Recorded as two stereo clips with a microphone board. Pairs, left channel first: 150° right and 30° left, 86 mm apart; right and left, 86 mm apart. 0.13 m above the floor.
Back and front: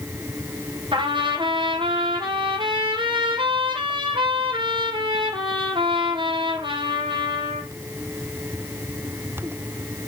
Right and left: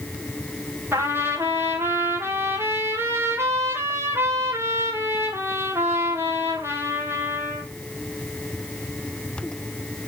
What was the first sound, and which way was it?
A trumpet, 30° left.